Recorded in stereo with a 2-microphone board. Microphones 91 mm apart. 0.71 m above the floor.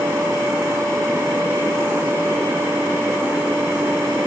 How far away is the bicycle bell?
I don't hear a bicycle bell.